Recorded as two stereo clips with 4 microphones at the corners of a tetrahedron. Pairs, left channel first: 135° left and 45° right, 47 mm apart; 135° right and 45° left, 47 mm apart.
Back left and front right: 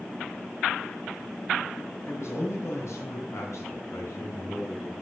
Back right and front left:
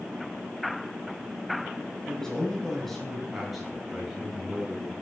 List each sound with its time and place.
2.1 s a man speaking: 145° left, 5.5 m; by 4.9 s 115° left, 7 m